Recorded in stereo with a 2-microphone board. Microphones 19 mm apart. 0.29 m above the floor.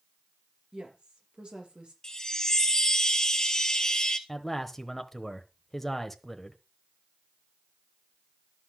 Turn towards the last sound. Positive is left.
turn(degrees=10)  # may be behind; listen again after turning